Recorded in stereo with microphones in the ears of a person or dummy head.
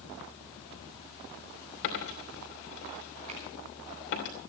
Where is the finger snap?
35° right (ahead or behind), 5.5 m.